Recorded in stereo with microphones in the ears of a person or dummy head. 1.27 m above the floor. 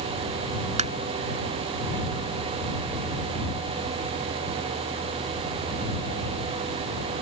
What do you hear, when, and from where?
0.8 s tapping: 35° right (ahead or behind)